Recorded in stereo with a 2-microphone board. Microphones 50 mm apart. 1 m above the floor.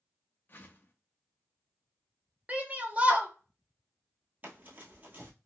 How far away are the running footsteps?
About 1.3 m.